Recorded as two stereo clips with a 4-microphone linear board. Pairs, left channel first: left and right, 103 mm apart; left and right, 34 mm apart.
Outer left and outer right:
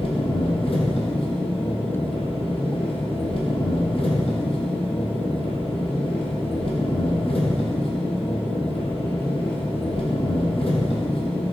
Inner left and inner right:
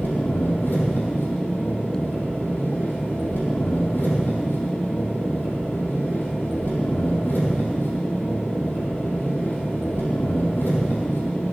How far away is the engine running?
About 2.5 m.